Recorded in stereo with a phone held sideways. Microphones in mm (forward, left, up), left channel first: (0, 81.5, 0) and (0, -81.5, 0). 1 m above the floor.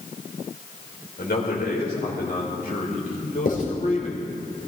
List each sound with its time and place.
1.2 s a man speaking: 80° left, 4 m; by 4.5 s 40° left (ahead or behind), 4 m
3.5 s writing: 60° left (ahead or behind), 3.5 m